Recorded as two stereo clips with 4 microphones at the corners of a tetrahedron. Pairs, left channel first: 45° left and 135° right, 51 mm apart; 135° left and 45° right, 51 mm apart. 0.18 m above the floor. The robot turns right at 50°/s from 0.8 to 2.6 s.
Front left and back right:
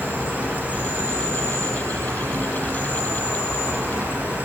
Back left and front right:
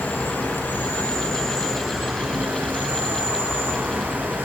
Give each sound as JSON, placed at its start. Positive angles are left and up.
{"t": 0.0, "sound": "an insect", "azimuth_deg": 180, "distance_m": 1.4}